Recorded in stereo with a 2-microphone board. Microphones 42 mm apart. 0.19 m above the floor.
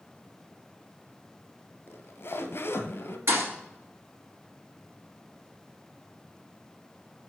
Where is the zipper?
65° left (ahead or behind), 0.7 m.